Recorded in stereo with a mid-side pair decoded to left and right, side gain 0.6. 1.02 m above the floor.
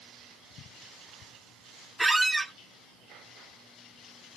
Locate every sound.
2.0 s a squeak: 10° right, 0.7 m